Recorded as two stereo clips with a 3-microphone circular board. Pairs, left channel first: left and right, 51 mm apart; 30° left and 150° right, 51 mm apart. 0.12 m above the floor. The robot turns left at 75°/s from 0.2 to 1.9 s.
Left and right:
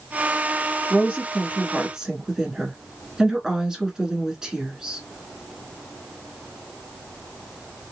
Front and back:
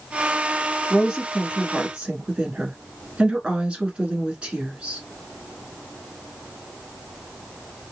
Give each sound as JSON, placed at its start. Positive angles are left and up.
{"t": 0.9, "sound": "a woman speaking", "azimuth_deg": -70, "distance_m": 1.1}